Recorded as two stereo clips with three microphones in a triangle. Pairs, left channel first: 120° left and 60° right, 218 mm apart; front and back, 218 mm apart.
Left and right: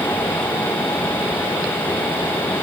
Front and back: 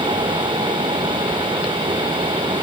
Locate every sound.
Only background noise.